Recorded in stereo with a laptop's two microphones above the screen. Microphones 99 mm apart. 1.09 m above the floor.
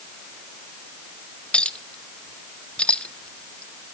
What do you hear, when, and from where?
1.5 s a clink: 10° left (ahead or behind), 0.9 m